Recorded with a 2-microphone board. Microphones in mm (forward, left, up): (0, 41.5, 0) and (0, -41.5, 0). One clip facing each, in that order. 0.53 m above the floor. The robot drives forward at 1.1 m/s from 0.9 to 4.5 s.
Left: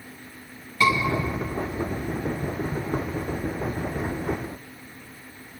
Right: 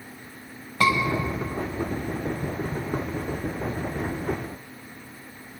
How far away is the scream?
About 3.5 m.